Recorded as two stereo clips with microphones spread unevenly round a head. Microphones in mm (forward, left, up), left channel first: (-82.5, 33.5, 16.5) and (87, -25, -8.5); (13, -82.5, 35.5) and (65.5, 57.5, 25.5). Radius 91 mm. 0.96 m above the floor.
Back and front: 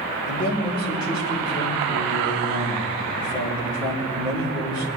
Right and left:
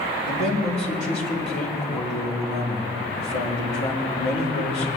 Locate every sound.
0.2 s a man speaking: 130° right, 3.5 m